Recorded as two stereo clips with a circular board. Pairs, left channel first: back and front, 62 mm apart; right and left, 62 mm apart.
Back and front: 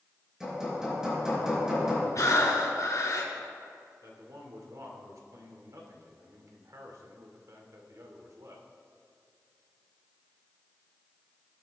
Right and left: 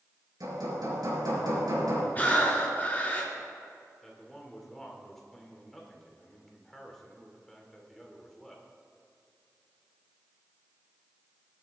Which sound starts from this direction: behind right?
Breathing, at 2.1 s.